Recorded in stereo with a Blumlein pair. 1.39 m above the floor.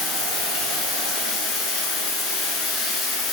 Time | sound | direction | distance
0.0 | running water | 20° left | 1.8 m